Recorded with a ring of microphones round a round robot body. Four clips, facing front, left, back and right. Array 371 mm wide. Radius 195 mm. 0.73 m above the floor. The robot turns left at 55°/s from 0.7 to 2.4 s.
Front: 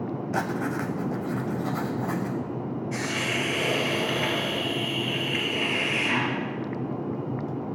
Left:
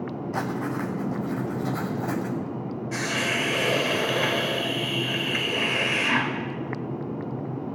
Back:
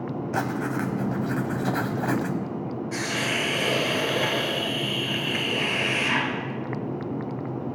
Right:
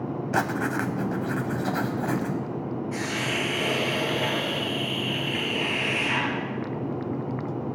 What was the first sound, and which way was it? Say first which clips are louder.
Writing: right 3 dB, back 1 dB; 90° right.